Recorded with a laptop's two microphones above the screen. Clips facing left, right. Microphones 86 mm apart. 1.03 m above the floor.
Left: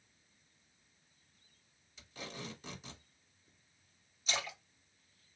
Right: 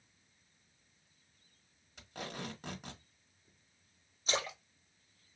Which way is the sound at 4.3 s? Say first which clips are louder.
Right 3 dB; 40° right (ahead or behind).